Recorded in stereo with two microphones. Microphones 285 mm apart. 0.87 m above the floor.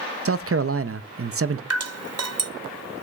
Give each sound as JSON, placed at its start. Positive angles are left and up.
{"t": 0.2, "sound": "a man speaking", "side_deg": -50, "distance_m": 0.5}
{"t": 1.7, "sound": "dripping", "side_deg": -60, "distance_m": 0.7}